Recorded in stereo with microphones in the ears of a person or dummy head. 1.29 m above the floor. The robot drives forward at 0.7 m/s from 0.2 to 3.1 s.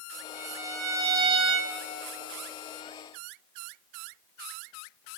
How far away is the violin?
About 1.5 m.